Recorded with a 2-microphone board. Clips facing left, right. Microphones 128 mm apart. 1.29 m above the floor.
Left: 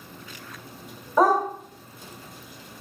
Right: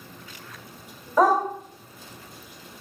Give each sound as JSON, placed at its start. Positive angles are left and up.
{"t": 1.2, "sound": "a dog barking", "side_deg": 0, "distance_m": 1.4}